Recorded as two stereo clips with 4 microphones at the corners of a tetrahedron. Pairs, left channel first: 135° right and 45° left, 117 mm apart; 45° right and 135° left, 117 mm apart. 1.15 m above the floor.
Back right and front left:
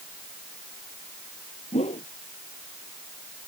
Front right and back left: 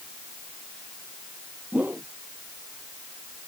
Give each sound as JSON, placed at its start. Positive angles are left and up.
{"t": 1.7, "sound": "a whoosh", "azimuth_deg": -150}